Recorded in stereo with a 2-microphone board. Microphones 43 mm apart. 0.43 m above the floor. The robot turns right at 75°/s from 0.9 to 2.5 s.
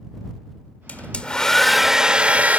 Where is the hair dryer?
120° left; by 2.6 s 120° right.